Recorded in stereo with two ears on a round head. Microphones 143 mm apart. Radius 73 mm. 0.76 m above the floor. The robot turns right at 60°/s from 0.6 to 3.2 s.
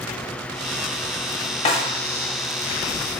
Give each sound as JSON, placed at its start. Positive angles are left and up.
{"t": 1.6, "sound": "a snare drum", "side_deg": 40, "distance_m": 0.9}